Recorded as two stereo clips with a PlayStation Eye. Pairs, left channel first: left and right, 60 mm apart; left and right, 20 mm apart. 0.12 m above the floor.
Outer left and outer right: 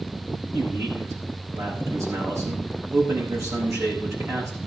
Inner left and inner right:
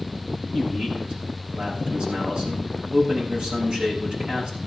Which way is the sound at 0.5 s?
60° right (ahead or behind).